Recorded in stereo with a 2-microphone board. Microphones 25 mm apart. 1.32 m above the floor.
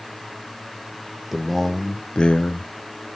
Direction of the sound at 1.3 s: 5° right (ahead or behind).